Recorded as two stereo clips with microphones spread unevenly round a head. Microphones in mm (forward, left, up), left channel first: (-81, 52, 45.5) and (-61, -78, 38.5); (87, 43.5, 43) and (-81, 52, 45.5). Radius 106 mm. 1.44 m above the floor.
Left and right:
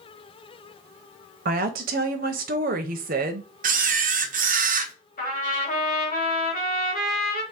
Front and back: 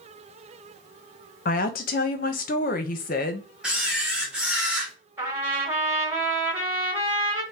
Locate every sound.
1.4 s a woman speaking: 50° right, 0.6 m
3.6 s a camera shutter: 95° right, 0.7 m
5.2 s a trumpet: 100° left, 1.9 m